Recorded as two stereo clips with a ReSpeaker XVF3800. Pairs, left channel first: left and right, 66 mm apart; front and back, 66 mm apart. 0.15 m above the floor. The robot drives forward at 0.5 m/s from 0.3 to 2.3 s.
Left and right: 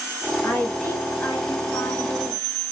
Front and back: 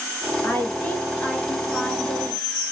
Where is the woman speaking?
40° left, 2 m; by 2.5 s 90° left, 1.8 m.